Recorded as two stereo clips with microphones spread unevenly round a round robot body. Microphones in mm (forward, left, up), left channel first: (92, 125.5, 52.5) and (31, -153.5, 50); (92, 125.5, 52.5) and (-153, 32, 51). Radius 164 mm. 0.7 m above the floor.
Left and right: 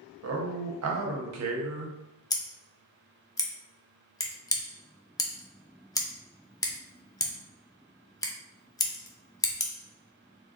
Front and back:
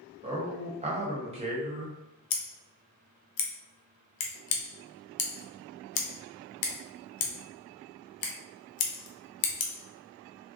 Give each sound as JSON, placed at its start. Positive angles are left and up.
{"t": 0.2, "sound": "a man speaking", "azimuth_deg": -95, "distance_m": 0.9}
{"t": 2.3, "sound": "scissors", "azimuth_deg": 0, "distance_m": 0.6}